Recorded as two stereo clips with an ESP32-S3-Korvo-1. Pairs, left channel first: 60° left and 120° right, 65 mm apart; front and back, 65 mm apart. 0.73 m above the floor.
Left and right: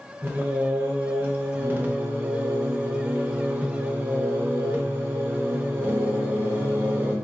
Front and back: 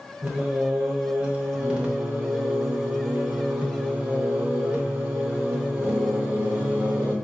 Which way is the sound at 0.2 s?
135° right.